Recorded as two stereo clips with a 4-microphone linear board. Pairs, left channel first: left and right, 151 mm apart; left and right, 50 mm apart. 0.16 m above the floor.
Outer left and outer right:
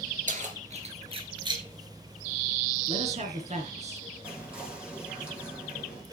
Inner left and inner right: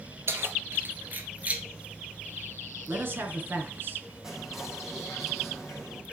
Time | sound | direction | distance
0.3 | keys jangling | 60° right (ahead or behind) | 2 m
2.9 | a man speaking | 50° right (ahead or behind) | 2 m
4.2 | whispering | 10° right (ahead or behind) | 6 m